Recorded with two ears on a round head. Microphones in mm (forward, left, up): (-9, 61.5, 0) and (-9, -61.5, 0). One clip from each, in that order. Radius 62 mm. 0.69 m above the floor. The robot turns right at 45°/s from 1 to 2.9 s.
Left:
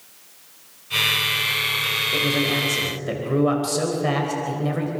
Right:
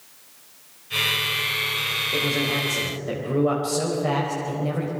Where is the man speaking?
5° right, 4 m; by 4.9 s 30° left, 4 m.